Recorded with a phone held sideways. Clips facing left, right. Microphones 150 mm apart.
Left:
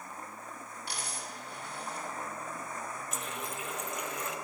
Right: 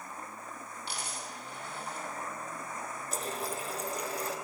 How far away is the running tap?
About 0.6 m.